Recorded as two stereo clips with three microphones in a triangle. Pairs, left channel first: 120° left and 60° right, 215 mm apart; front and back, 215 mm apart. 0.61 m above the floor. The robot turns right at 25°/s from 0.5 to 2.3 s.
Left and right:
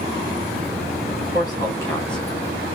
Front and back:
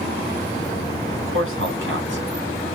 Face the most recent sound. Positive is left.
turn(degrees=-150)